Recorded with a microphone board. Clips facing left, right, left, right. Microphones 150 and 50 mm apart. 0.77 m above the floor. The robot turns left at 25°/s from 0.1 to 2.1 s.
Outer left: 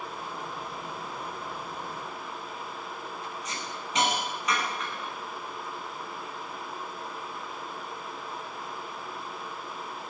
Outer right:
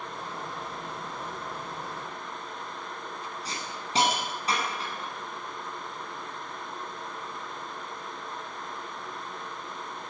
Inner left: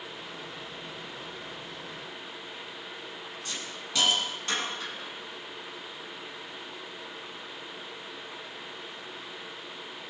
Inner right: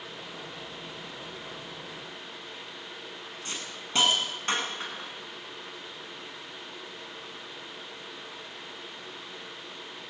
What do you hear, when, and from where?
3.5 s a hiss: 35° right (ahead or behind), 8.5 m